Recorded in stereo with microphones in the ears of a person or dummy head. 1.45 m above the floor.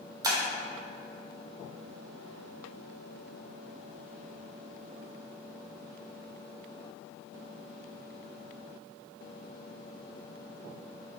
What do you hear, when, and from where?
0.2 s breaking glass: 15° right (ahead or behind), 1.0 m